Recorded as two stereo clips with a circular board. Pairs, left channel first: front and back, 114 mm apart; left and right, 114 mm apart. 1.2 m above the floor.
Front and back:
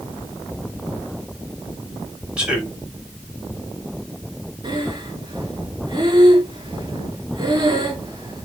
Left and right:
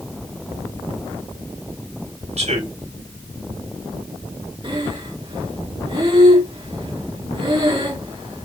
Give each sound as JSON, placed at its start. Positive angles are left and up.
{"t": 2.4, "sound": "a man speaking", "azimuth_deg": -100, "distance_m": 5.5}
{"t": 4.6, "sound": "breathing", "azimuth_deg": -130, "distance_m": 3.0}